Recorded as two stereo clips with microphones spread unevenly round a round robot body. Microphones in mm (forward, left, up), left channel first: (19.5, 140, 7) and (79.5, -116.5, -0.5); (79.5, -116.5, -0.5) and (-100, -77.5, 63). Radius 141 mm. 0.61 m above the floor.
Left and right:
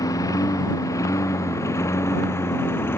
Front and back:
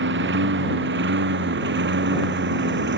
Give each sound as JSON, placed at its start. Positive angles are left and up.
{"t": 0.0, "sound": "a lawn mower", "azimuth_deg": 180}